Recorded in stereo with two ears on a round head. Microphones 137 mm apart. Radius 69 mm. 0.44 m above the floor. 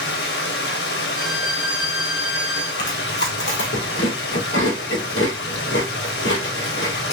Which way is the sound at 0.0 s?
75° left (ahead or behind).